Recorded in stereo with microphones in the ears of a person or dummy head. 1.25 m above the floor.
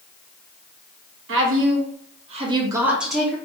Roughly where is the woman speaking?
Right.